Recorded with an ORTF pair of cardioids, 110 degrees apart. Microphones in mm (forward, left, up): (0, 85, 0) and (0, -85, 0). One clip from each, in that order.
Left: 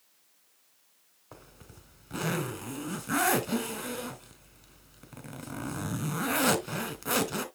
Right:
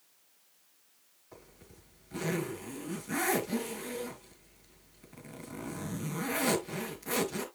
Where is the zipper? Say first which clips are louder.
Left 3 dB; 65° left, 3 m.